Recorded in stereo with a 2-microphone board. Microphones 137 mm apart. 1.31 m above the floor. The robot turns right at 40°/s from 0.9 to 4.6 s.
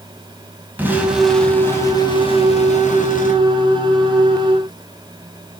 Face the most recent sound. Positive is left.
turn(degrees=135)